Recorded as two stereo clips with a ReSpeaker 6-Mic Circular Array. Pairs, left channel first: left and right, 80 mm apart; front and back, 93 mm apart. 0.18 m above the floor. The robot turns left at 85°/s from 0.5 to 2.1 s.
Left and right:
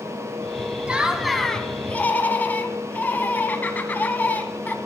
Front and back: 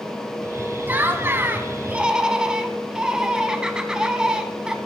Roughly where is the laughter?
Behind right.